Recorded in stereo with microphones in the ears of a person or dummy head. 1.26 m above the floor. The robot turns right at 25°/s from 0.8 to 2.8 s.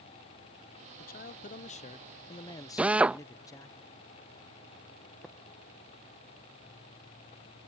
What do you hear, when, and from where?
1.0 s a man speaking: 115° left; by 3.8 s 160° left
2.8 s a drill: 5° right (ahead or behind)
5.2 s tapping: centre (ahead or behind)